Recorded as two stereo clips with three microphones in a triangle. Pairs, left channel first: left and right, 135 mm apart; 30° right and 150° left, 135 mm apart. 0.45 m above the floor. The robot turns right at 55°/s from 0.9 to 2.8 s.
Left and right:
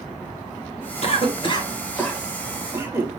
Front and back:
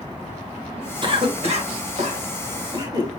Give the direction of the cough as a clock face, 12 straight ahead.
8 o'clock.